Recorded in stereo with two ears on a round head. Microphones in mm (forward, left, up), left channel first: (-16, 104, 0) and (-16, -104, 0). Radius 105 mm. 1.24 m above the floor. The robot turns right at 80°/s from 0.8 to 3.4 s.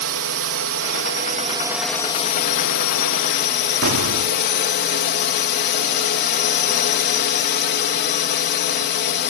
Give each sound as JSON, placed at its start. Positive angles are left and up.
{"t": 0.0, "sound": "a drone", "azimuth_deg": -85}
{"t": 3.8, "sound": "an explosion", "side_deg": -75}